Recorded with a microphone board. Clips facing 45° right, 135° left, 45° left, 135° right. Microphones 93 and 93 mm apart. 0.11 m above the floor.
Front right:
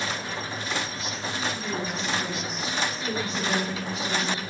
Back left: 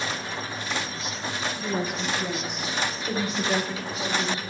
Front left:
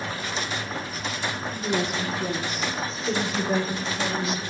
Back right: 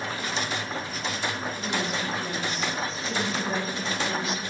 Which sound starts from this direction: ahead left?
A woman speaking, at 1.5 s.